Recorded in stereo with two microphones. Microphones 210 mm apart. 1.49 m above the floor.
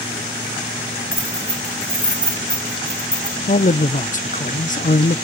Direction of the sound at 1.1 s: 50° right (ahead or behind).